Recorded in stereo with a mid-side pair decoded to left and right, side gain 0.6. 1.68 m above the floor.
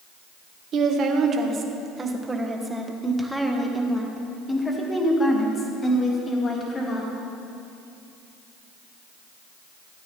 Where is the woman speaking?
50° right, 1.7 m; by 7.1 s 35° left, 3 m.